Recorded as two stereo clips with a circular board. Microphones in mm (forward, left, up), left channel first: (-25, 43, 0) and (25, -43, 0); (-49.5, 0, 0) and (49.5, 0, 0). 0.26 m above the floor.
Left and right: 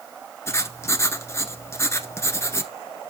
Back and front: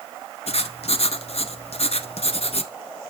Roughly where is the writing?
Behind.